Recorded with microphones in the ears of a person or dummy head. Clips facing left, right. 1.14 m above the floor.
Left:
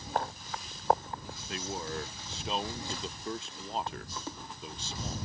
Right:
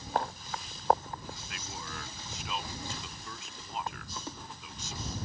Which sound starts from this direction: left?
A man speaking, at 1.5 s.